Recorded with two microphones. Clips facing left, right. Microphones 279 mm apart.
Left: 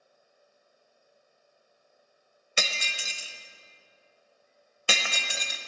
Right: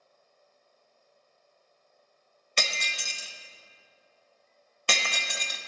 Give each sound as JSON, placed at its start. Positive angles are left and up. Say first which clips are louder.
{"t": 2.6, "sound": "breaking glass", "louder": "even", "side_deg": 10, "distance_m": 0.8}